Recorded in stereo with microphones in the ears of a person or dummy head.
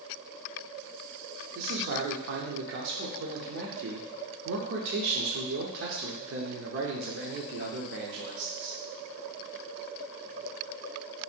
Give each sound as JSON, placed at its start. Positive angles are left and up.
{"t": 1.6, "sound": "a man speaking", "side_deg": -60, "distance_m": 0.8}